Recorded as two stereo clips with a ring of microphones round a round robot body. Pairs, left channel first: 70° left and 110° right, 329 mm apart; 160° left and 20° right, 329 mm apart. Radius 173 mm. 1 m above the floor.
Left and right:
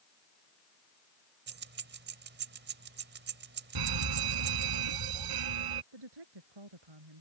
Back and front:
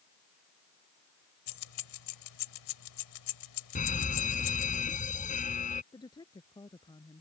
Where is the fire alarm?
135° right.